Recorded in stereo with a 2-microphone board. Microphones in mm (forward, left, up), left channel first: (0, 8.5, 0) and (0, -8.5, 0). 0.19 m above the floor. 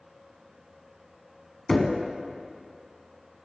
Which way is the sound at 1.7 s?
25° left (ahead or behind).